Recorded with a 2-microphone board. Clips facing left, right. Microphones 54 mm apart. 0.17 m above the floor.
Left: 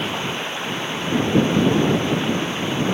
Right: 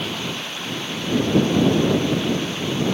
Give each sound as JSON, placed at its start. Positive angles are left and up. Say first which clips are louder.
{"t": 0.0, "sound": "running water", "louder": "left 3 dB", "side_deg": 25}